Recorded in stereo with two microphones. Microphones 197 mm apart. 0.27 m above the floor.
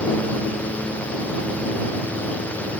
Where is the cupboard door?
I don't hear a cupboard door.